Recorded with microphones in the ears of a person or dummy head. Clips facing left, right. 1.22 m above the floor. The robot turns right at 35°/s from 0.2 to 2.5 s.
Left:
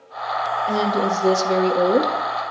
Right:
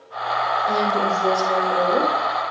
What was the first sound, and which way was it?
A woman speaking, 5° left.